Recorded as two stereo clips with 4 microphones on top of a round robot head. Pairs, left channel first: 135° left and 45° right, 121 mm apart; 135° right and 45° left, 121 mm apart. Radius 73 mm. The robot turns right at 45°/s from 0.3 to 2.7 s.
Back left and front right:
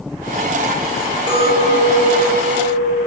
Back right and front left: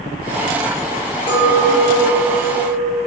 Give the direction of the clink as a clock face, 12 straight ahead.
6 o'clock.